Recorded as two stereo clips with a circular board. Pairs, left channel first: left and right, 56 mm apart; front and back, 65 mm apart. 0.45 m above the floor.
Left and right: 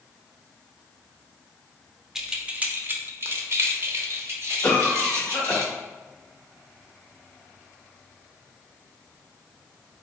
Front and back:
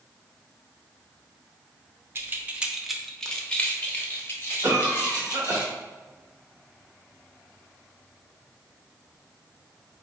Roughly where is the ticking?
I don't hear ticking.